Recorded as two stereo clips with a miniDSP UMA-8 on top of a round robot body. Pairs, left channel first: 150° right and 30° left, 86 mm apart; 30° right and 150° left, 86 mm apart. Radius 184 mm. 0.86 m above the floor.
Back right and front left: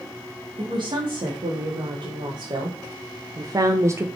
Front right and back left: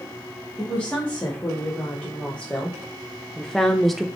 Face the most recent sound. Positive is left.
turn(degrees=65)